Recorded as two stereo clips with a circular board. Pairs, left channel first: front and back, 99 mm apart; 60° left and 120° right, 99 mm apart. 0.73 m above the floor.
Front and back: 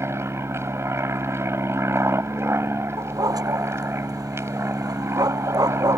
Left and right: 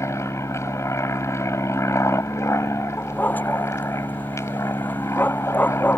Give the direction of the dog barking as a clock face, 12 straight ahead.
8 o'clock.